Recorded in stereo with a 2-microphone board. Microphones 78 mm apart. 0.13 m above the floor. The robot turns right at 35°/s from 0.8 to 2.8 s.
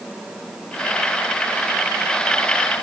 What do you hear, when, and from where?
Only background noise.